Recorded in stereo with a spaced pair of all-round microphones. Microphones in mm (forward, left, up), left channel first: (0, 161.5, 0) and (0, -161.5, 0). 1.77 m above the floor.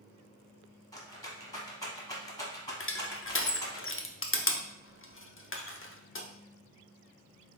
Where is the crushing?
40° left (ahead or behind), 0.5 m.